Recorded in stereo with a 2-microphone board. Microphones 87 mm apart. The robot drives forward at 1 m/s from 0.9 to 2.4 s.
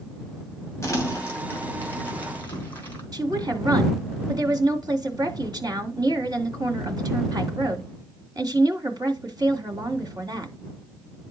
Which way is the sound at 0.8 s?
35° left (ahead or behind).